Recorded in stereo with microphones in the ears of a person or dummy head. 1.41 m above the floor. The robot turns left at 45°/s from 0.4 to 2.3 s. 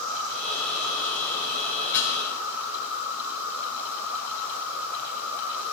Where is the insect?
85° right, 6 m; by 5.7 s 170° right, 6 m.